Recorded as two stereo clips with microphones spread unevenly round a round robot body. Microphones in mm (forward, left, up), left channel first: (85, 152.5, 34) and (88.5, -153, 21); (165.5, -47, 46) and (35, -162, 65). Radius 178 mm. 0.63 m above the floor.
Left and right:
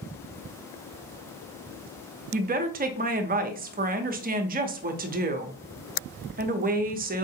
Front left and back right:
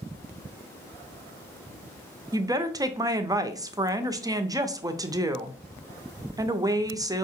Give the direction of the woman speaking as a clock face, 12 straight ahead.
2 o'clock.